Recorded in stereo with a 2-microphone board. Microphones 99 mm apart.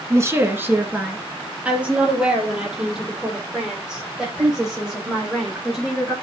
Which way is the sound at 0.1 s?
30° right (ahead or behind).